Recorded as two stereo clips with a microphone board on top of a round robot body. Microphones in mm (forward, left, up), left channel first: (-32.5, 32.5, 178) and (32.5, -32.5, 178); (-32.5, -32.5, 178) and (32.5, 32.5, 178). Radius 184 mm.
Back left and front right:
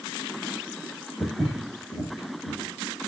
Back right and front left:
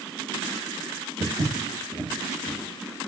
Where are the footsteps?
60° left, 1.9 m; by 3.1 s 155° right, 1.4 m.